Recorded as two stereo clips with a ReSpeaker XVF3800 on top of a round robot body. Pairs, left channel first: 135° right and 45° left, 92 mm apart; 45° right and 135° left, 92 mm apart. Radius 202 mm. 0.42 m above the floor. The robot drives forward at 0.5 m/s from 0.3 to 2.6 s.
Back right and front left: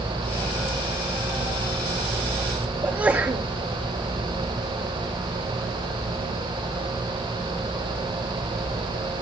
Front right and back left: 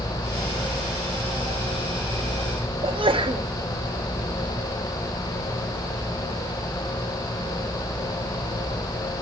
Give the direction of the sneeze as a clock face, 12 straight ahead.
8 o'clock.